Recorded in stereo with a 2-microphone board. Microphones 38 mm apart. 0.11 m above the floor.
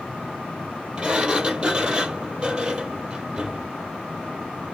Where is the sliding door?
25° right (ahead or behind), 1.4 m.